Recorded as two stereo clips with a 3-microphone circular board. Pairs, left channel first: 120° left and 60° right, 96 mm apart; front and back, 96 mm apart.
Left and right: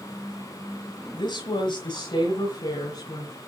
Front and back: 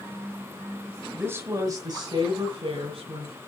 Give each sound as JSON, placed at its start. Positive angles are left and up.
{"t": 1.1, "sound": "a woman speaking", "azimuth_deg": 115, "distance_m": 1.3}